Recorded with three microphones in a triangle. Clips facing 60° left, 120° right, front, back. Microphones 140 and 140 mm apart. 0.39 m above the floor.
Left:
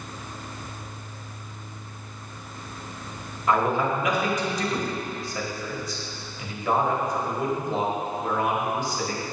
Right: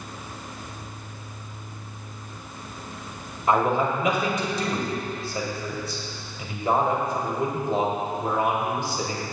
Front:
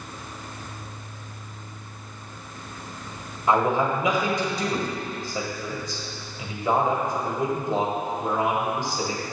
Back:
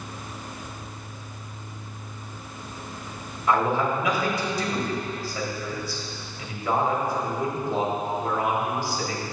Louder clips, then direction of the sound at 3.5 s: Right 1 dB, front 1 dB; 65° right.